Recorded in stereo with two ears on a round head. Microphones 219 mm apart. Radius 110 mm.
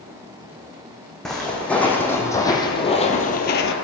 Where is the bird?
I don't hear a bird.